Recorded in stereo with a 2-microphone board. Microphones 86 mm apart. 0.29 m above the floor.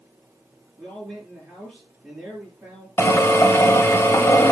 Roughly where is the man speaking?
Centre.